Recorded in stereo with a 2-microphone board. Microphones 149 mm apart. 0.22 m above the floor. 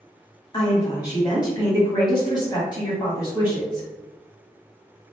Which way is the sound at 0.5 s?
30° left (ahead or behind).